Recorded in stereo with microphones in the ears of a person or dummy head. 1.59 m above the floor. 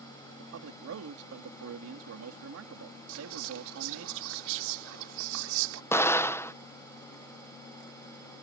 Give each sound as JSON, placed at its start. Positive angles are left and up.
{"t": 0.4, "sound": "a man speaking", "side_deg": -85}
{"t": 3.1, "sound": "whispering", "side_deg": -80}
{"t": 5.9, "sound": "an explosion", "side_deg": 15}